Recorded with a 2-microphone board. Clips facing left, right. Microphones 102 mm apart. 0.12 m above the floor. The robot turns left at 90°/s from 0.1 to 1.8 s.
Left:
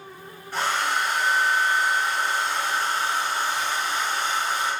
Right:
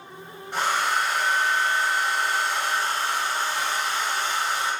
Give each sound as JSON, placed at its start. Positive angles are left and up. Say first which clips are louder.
{"t": 0.5, "sound": "a hair dryer", "louder": "right 1 dB", "side_deg": -20, "distance_m": 1.6}